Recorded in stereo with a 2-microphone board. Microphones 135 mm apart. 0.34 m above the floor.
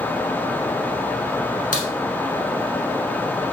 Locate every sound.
1.7 s a crack: 90° left, 1.0 m